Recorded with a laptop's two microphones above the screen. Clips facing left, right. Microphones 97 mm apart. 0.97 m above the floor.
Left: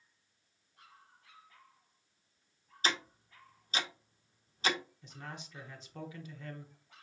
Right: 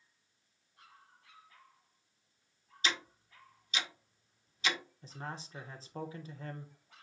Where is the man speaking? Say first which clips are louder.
Right 3 dB; 35° right (ahead or behind), 0.8 m.